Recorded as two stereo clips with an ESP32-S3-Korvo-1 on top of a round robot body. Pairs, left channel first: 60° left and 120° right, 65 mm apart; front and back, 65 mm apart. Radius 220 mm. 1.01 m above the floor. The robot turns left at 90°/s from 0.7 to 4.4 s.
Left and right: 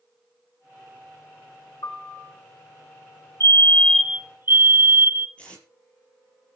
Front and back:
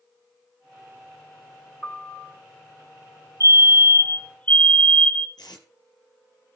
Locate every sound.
1.8 s a piano: 85° left, 1.2 m; by 2.4 s 40° left, 1.2 m
3.4 s a fire alarm: 25° left, 1.7 m; by 5.3 s 65° right, 1.7 m
5.4 s tape being pulled: 15° right, 10 m